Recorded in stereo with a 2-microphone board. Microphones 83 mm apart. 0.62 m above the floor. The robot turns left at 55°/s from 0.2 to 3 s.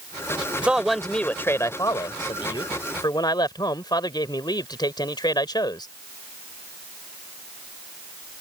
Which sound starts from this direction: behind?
A man speaking, at 0.6 s.